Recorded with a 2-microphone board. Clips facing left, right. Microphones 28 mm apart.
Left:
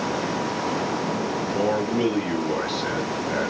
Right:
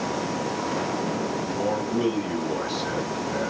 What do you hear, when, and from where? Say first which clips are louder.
1.5 s a man speaking: left 4 dB; 65° left (ahead or behind), 3.5 m